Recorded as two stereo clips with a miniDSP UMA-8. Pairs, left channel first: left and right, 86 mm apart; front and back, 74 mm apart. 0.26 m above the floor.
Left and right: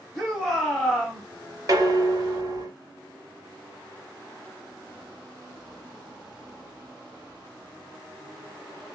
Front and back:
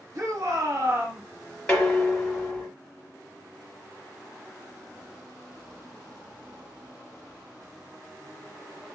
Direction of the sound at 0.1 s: Straight behind.